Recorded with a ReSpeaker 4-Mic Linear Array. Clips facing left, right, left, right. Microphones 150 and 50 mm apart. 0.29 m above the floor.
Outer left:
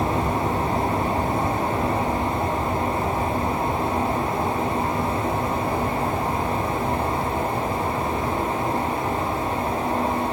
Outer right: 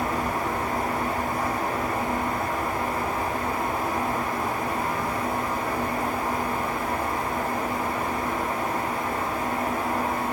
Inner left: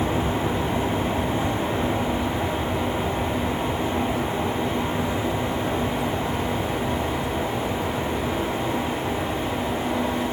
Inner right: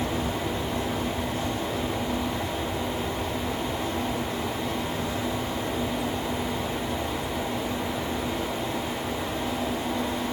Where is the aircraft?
60° left (ahead or behind).